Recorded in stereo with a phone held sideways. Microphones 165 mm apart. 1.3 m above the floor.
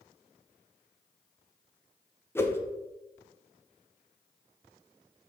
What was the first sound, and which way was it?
A whoosh, 15° left (ahead or behind).